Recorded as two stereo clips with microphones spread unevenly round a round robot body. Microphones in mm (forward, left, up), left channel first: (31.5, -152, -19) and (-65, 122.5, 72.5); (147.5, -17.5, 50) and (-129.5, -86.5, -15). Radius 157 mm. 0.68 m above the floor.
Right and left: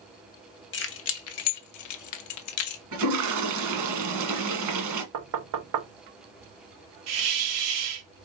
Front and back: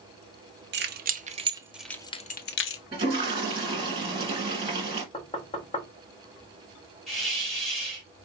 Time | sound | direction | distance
0.7 | keys jangling | 115° right | 0.9 m
2.9 | a toilet flushing | 115° left | 1.6 m
5.1 | knocking | 90° left | 0.9 m
7.1 | a hiss | 100° left | 1.1 m